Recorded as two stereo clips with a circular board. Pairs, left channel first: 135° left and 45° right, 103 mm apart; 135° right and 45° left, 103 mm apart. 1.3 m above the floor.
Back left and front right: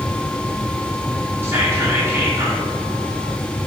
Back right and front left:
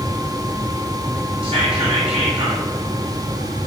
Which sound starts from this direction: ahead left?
Whispering, at 1.4 s.